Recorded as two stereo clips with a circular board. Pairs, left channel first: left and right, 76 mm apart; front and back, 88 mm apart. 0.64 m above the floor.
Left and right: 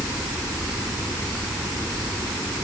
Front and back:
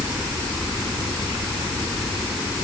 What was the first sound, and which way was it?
Only background noise.